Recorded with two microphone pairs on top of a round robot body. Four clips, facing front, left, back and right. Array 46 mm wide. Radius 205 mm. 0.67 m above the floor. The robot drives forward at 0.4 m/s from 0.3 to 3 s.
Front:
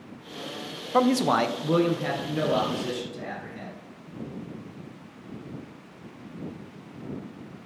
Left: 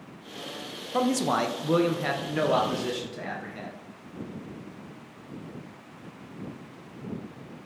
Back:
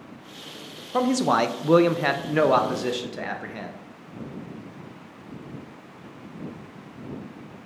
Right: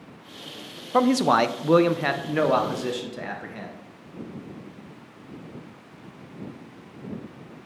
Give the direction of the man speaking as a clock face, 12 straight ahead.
2 o'clock.